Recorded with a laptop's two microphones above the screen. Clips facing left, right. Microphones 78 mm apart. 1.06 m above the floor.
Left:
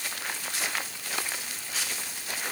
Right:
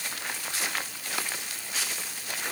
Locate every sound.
Only background noise.